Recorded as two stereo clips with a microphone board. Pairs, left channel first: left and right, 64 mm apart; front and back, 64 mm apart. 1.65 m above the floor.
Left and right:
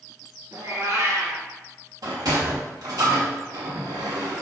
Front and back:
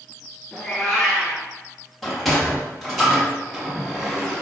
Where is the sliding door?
90° right, 3 m.